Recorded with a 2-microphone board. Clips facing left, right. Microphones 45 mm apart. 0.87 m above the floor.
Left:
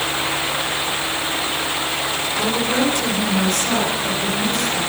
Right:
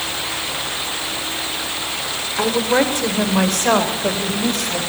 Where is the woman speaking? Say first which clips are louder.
Right 4 dB; 35° right (ahead or behind), 3 m; by 4.8 s 70° right (ahead or behind), 5 m.